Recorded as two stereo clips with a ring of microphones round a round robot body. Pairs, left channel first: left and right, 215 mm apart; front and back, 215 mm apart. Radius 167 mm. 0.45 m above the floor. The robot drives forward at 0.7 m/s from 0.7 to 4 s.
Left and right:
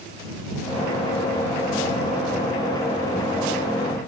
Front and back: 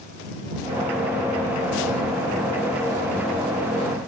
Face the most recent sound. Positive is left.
No sound to turn to.